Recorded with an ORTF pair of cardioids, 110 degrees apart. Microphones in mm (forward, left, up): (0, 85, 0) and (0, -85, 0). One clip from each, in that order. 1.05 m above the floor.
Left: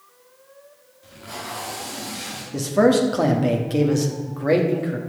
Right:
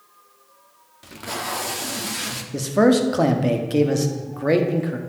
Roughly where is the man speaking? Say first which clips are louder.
Even; ahead.